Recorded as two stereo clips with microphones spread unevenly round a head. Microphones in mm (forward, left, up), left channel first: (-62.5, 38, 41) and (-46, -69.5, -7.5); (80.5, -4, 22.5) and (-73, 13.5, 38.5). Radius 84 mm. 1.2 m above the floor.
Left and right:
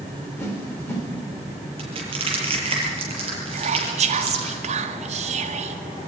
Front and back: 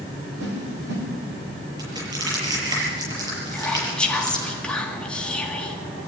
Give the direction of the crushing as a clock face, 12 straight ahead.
4 o'clock.